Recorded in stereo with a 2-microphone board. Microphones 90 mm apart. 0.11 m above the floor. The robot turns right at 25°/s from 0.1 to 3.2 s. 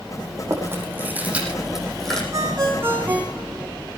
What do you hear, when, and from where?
0.5 s chewing: 35° right (ahead or behind), 5.5 m; by 2.2 s 5° left (ahead or behind), 5.5 m
2.3 s a ringtone: 40° right (ahead or behind), 4 m; by 3.7 s 20° right (ahead or behind), 4 m